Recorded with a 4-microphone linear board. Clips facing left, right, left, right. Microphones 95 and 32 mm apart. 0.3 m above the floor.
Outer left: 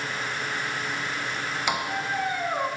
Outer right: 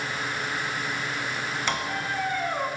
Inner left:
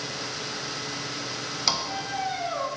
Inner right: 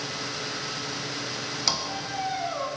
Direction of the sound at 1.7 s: 10° left (ahead or behind).